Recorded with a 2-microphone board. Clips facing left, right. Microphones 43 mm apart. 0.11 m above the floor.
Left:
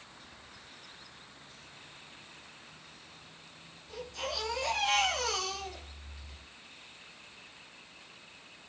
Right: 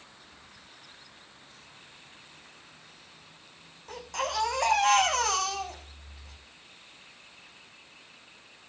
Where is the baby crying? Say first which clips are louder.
Right 6 dB; 80° right, 6 m.